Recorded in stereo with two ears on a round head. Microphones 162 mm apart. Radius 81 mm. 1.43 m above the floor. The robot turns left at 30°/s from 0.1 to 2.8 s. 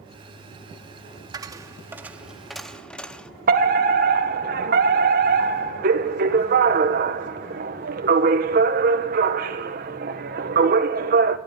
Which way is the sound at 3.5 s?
50° right (ahead or behind).